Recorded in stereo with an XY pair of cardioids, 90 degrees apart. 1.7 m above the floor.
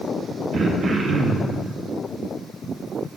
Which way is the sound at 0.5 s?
60° right.